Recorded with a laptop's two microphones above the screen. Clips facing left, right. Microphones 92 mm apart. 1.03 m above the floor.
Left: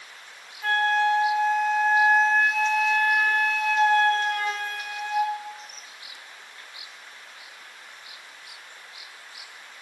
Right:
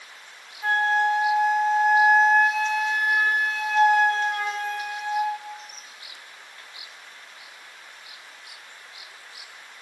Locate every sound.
0.6 s a flute: 15° right (ahead or behind), 3 m